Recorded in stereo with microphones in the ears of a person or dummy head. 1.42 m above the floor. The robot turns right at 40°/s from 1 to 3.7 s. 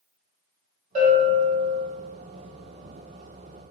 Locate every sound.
0.9 s a bell: 45° right, 1.4 m; by 1.8 s 10° right, 1.4 m